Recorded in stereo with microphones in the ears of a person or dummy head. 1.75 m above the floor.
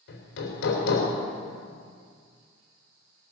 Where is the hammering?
65° left (ahead or behind), 3 m.